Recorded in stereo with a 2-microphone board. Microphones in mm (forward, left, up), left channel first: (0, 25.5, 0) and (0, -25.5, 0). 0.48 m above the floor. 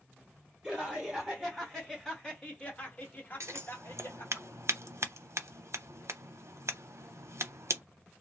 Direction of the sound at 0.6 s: 10° right (ahead or behind).